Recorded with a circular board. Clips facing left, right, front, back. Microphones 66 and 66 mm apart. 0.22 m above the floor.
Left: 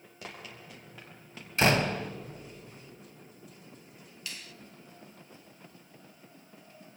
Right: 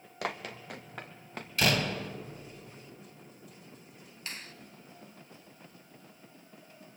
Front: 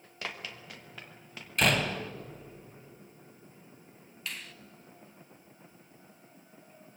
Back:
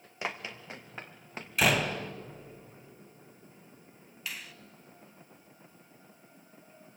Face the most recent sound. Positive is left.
turn(degrees=-95)